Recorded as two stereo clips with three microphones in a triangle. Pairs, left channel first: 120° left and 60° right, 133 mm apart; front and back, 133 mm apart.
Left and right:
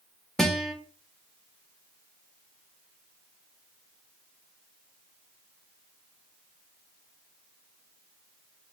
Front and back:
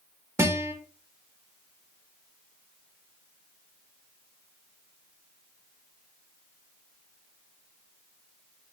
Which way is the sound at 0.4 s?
155° right.